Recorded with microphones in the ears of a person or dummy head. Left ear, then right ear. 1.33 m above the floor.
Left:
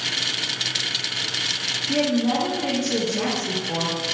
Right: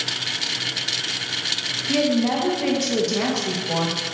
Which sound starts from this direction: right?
A woman speaking, at 1.9 s.